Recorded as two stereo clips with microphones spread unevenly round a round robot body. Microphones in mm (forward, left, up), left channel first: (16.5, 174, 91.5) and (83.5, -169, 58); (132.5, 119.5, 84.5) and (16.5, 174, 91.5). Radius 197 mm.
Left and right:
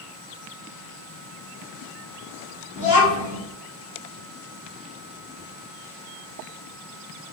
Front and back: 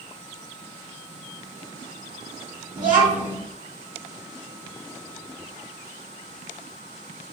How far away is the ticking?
No ticking in this recording.